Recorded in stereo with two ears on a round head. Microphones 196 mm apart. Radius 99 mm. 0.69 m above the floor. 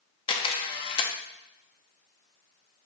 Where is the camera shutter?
25° left (ahead or behind), 0.7 m.